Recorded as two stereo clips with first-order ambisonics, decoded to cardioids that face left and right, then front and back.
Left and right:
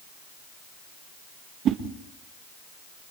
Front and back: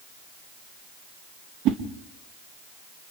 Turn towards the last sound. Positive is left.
turn(degrees=-140)